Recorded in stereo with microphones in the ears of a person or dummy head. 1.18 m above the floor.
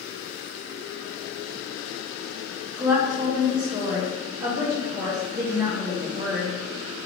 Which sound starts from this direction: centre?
A woman speaking, at 2.8 s.